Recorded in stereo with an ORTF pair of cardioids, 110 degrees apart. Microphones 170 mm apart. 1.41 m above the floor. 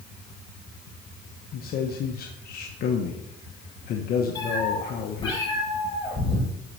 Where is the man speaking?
60° left, 1.1 m.